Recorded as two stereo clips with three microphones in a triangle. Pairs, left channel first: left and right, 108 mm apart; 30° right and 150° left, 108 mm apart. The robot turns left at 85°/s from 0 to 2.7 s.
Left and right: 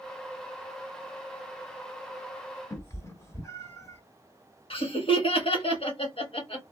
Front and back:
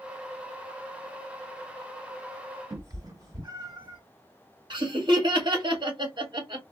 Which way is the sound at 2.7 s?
130° left.